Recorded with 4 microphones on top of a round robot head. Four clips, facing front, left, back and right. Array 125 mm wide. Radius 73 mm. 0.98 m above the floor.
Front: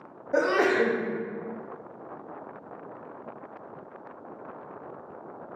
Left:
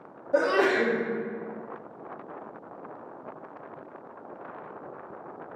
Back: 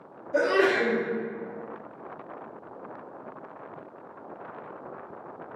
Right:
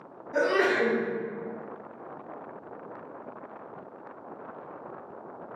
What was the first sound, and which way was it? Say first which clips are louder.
A sneeze: left 2 dB, even; 40° left.